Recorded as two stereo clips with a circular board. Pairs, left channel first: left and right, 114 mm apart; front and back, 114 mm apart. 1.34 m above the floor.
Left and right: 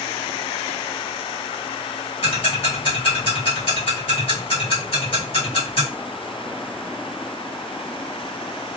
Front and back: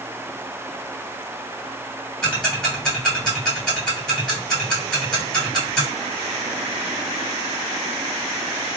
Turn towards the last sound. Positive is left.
turn(degrees=80)